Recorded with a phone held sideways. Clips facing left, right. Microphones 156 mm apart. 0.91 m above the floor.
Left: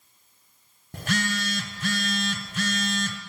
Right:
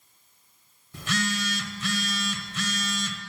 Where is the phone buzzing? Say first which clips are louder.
Left 1 dB; 60° left (ahead or behind), 1.1 m.